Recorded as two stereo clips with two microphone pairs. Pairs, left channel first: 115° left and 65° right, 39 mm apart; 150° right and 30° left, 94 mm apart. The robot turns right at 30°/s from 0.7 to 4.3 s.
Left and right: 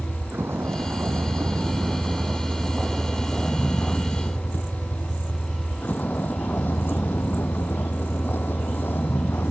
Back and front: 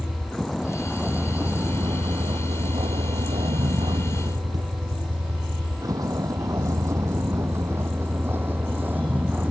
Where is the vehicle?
65° right; by 9.5 s 105° left.